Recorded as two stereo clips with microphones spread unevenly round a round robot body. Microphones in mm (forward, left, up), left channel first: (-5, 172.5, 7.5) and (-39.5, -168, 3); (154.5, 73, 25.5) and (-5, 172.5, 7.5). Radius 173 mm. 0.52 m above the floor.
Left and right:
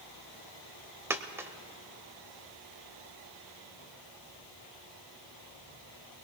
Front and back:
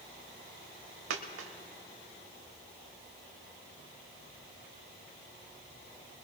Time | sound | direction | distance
1.1 | a dropped coin | straight behind | 0.6 m